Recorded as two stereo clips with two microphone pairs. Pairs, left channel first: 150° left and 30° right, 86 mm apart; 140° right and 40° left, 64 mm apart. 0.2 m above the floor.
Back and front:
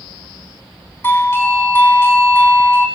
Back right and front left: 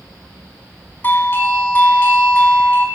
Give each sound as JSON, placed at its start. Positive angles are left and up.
{"t": 1.0, "sound": "a doorbell", "azimuth_deg": -170, "distance_m": 1.7}